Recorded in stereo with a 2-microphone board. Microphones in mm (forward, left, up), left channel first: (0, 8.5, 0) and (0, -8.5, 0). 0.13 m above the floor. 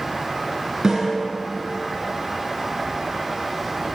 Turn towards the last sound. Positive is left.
turn(degrees=-40)  # may be behind; listen again after turning